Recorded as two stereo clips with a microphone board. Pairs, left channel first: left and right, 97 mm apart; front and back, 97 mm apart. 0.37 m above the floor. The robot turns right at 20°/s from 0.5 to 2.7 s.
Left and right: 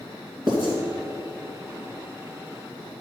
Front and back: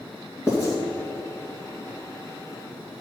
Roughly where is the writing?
Ahead right.